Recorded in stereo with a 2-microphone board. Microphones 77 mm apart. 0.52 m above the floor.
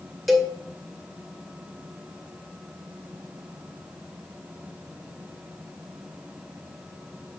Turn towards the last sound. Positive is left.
turn(degrees=0)  # may be behind; listen again after turning